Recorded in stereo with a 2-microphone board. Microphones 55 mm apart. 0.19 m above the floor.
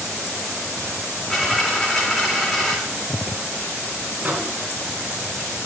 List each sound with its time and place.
1.3 s a dropped coin: centre (ahead or behind), 5.5 m
4.2 s a microwave: 30° right (ahead or behind), 2.0 m